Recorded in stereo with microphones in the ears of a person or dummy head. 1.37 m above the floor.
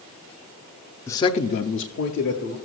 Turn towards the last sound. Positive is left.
turn(degrees=55)  # may be behind; listen again after turning